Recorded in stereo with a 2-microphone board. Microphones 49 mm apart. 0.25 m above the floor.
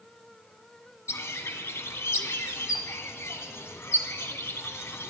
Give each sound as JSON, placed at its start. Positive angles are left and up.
{"t": 1.1, "sound": "a bird", "side_deg": 65, "distance_m": 0.7}